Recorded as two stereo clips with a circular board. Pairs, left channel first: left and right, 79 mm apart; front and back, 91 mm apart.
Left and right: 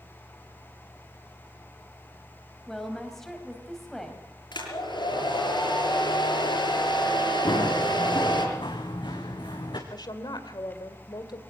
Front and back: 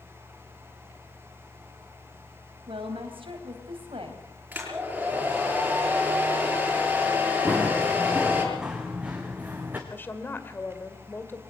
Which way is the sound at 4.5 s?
105° left.